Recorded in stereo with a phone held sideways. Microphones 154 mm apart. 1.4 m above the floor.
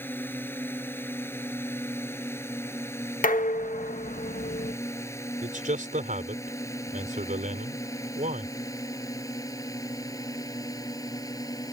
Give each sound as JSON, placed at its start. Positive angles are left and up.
{"t": 0.0, "sound": "a drone", "side_deg": 15}
{"t": 3.2, "sound": "dishes clattering", "side_deg": 60}
{"t": 5.4, "sound": "a man speaking", "side_deg": -55}